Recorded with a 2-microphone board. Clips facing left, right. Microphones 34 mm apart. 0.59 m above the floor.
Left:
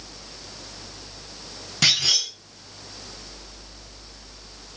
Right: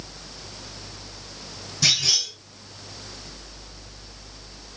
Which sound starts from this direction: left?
A clunk, at 1.8 s.